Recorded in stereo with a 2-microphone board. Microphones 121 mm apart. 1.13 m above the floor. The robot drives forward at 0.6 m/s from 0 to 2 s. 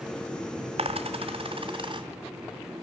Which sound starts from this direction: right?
A dropped coin, at 0.8 s.